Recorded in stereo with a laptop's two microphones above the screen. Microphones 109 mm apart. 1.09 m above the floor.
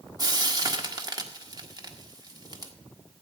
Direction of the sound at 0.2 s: 35° right (ahead or behind).